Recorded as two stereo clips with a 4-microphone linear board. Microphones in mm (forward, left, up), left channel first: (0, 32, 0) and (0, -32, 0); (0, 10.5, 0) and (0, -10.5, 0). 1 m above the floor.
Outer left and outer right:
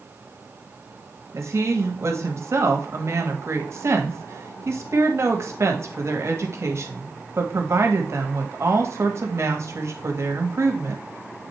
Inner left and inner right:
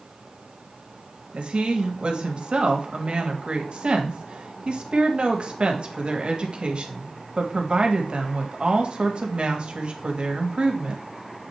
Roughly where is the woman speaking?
Right.